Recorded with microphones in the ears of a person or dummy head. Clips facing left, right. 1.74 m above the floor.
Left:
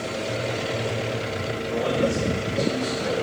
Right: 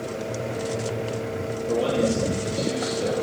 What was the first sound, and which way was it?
A man speaking, 55° right (ahead or behind).